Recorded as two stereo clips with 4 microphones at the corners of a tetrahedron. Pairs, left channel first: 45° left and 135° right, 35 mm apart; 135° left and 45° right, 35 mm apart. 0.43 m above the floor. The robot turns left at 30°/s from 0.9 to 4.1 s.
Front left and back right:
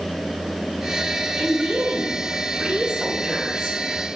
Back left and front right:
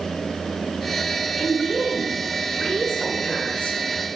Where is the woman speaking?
140° right, 1.0 m; by 3.8 s 150° left, 1.0 m.